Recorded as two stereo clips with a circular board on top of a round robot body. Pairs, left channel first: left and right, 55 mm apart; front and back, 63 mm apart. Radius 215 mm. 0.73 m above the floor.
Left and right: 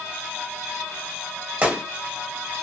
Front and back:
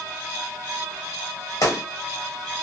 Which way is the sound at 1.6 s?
25° right.